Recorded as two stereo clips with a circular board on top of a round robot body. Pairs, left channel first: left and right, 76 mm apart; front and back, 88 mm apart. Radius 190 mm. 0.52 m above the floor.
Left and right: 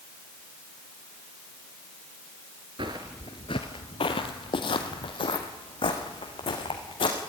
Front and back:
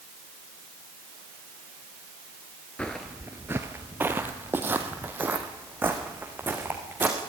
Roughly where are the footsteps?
Right.